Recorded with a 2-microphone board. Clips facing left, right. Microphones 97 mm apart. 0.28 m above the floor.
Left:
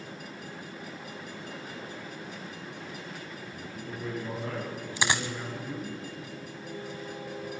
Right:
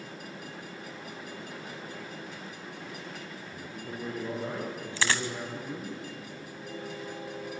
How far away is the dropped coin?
About 1.0 m.